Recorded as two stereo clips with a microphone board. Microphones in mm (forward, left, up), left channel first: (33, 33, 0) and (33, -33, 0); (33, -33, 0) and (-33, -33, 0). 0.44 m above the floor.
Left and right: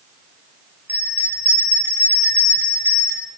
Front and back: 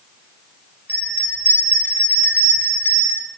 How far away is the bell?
About 1.6 m.